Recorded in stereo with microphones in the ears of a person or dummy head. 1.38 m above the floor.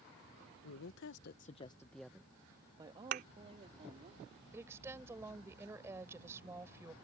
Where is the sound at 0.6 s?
85° left; by 4.1 s 35° right (ahead or behind).